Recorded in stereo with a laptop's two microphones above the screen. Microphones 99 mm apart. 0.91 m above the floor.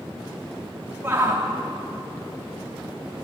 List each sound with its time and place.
1.0 s a shout: 20° right (ahead or behind), 2 m